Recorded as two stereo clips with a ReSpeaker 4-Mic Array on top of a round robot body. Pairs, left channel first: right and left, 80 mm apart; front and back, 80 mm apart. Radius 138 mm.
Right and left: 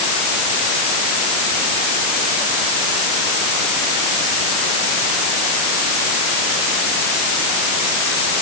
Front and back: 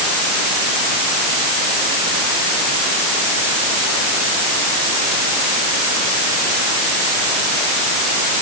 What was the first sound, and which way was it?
Only background noise.